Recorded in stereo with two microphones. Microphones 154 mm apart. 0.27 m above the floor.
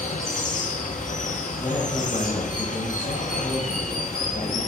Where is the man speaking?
35° left (ahead or behind), 1.4 m.